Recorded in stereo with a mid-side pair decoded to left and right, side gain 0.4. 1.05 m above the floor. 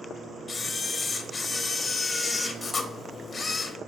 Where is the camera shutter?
40° left, 0.7 m.